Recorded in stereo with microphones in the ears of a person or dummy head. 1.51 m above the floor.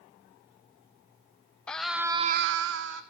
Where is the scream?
5° left (ahead or behind), 1.0 m; by 3.0 s 60° right (ahead or behind), 1.0 m.